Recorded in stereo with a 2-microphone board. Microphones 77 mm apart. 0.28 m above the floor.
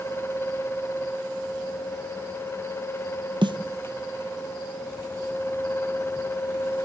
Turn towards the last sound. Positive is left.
turn(degrees=-85)